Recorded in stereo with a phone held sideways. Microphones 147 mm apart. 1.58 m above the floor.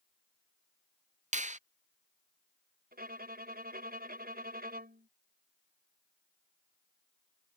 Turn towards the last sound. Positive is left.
turn(degrees=-75)  # may be behind; listen again after turning